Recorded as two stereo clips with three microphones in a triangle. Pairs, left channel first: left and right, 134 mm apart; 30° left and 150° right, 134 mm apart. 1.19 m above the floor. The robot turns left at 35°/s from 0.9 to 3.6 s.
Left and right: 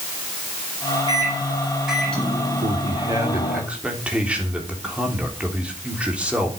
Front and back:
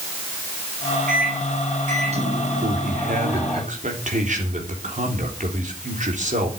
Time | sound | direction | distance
1.1 | a microwave | 145° right | 8 m
2.6 | a man speaking | 135° right | 3.5 m